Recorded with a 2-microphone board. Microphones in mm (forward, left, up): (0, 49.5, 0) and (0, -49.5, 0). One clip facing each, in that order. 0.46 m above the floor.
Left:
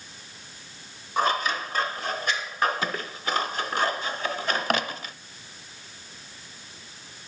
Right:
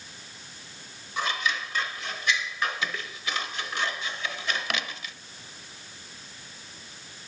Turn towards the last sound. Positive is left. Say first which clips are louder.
# left 5 dB
turn(degrees=45)  # may be behind; listen again after turning